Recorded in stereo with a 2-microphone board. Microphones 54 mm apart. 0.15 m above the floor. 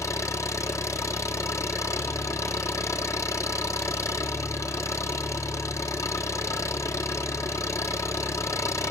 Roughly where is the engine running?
Left.